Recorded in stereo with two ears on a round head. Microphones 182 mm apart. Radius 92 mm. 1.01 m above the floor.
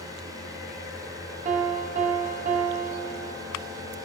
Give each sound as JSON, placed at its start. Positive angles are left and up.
{"t": 1.4, "sound": "a piano", "side_deg": -30, "distance_m": 0.7}